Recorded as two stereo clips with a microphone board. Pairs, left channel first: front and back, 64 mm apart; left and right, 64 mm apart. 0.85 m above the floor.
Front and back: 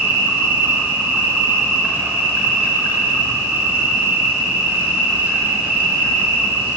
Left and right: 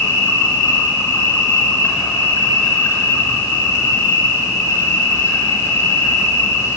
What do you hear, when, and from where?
0.0 s an insect: 120° left, 2 m